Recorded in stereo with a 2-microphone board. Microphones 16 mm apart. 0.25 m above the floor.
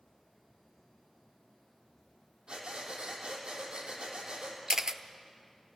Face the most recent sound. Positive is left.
turn(degrees=-40)  # may be behind; listen again after turning